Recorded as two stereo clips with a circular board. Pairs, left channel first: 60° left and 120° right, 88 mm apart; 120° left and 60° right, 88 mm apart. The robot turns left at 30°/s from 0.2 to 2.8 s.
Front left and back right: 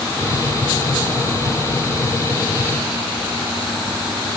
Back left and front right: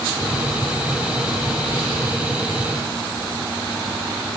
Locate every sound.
Only background noise.